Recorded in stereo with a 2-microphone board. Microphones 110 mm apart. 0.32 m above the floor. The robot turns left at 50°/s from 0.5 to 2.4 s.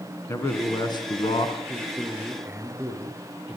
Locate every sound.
0.3 s a man speaking: 155° left, 3.5 m; by 1.6 s 100° left, 3.5 m
1.7 s a man speaking: 15° left, 6.5 m; by 3.6 s 20° right, 6.5 m